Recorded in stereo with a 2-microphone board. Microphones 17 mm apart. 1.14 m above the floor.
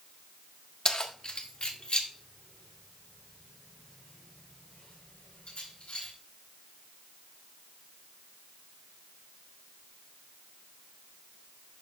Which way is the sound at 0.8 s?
45° left (ahead or behind).